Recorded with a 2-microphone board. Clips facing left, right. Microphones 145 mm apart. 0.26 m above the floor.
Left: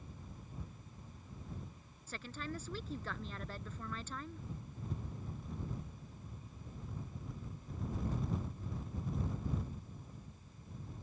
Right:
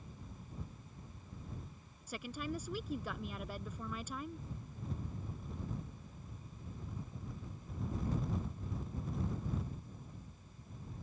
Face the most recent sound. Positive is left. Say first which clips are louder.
# right 3 dB
turn(degrees=-10)  # may be behind; listen again after turning